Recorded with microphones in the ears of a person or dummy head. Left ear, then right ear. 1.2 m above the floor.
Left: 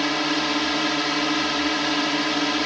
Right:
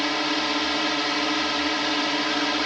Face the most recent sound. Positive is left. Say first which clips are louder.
# left 1 dB
turn(degrees=-15)  # may be behind; listen again after turning